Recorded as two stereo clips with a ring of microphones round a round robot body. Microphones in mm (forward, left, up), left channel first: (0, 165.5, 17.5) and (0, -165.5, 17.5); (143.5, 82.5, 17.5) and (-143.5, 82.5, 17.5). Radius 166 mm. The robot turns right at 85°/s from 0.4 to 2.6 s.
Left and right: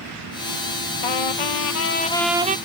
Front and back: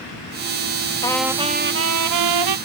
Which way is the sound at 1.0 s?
75° left.